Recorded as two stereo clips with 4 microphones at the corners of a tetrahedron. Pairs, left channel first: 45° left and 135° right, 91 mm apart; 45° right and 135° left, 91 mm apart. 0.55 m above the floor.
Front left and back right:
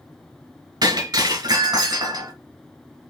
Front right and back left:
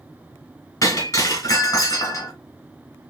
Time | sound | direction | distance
0.8 | breaking glass | 95° right | 2.0 m